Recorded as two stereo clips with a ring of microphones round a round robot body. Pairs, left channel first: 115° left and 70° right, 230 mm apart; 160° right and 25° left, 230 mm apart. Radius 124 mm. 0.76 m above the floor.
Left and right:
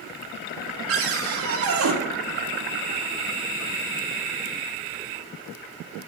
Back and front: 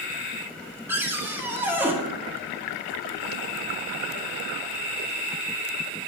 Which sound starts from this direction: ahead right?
A cupboard door, at 0.9 s.